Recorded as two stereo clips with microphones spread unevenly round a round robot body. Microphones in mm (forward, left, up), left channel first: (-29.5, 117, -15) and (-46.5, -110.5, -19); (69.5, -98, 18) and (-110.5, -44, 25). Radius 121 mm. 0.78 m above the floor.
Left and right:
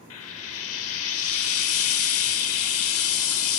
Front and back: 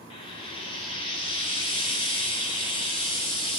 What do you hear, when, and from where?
0.1 s frying: 55° left, 1.1 m